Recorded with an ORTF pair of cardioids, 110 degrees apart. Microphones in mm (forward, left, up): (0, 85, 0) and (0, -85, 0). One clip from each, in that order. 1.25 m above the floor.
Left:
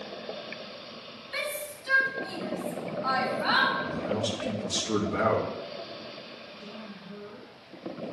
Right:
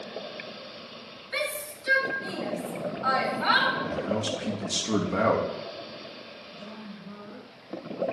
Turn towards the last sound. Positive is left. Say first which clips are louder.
# even
turn(degrees=-55)